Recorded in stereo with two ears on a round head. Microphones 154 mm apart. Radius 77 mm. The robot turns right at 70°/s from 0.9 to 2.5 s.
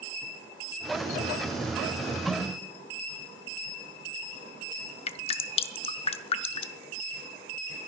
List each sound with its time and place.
2.3 s a snare drum: centre (ahead or behind), 4.5 m; by 2.4 s 15° left (ahead or behind), 4.5 m
5.1 s dripping: 35° left (ahead or behind), 0.6 m